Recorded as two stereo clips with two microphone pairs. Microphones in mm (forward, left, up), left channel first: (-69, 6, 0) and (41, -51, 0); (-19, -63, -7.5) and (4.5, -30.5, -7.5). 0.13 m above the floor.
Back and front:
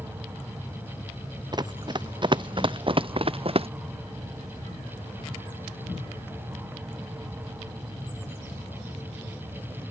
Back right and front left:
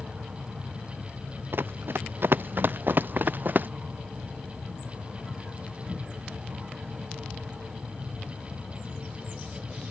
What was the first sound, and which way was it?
Running footsteps, 30° left.